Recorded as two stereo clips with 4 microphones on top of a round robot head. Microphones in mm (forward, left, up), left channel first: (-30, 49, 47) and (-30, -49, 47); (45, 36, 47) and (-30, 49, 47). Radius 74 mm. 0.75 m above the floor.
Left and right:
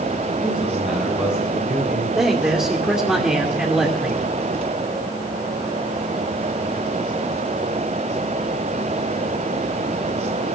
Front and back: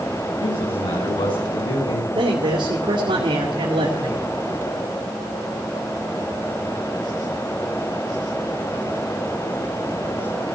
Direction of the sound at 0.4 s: 10° right.